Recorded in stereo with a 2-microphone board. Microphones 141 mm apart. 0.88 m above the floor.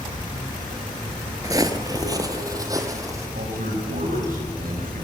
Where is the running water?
30° left (ahead or behind), 7 m.